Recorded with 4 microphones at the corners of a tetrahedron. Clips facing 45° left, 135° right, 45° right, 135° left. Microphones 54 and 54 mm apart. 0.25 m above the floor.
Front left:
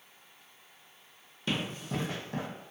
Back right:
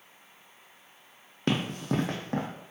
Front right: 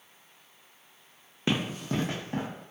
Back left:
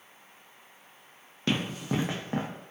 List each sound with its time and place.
1.5 s running footsteps: 115° right, 0.5 m; by 2.5 s 175° right, 0.7 m